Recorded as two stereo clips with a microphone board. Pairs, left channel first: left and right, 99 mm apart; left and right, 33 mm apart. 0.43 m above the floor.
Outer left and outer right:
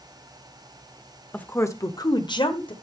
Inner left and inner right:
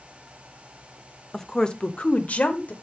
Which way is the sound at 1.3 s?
15° left (ahead or behind).